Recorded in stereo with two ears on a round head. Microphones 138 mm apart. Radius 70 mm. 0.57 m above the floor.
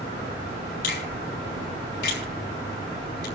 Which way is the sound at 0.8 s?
75° left (ahead or behind).